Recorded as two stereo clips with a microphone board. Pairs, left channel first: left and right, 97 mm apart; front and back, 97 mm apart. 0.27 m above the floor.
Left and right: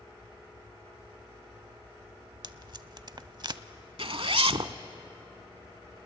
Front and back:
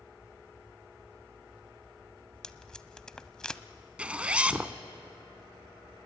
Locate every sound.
2.4 s tape being pulled: 80° right, 0.6 m
4.0 s a zipper: 105° right, 0.7 m